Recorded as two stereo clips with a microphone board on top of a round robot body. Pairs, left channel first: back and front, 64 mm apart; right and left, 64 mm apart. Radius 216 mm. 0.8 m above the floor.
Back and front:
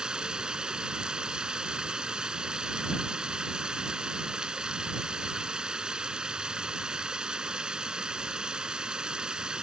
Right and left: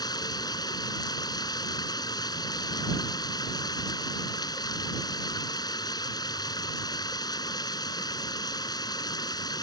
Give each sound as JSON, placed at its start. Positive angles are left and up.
{"t": 0.0, "sound": "running water", "azimuth_deg": -80}